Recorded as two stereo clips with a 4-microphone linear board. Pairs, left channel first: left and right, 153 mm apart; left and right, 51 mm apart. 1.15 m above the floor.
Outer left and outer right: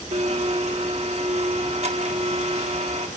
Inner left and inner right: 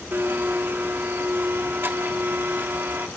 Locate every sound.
0.1 s a blender: 45° right (ahead or behind), 1.2 m